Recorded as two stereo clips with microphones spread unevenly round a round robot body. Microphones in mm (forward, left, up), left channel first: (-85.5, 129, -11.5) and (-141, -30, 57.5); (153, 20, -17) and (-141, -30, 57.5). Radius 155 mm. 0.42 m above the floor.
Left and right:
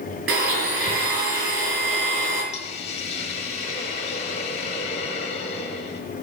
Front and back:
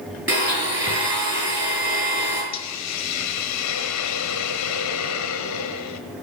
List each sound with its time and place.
0.3 s a blender: 95° right, 5.5 m
2.5 s a hiss: 25° left, 1.2 m